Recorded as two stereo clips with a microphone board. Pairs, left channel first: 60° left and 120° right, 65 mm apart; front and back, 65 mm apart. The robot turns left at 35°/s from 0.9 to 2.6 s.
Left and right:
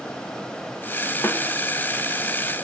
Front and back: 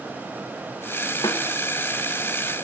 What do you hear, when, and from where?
1.2 s a snare drum: straight ahead, 4 m; by 1.4 s 5° right, 4 m